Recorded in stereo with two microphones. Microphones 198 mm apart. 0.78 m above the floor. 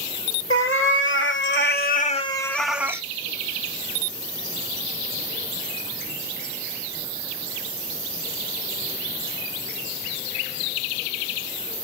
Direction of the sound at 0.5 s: 90° left.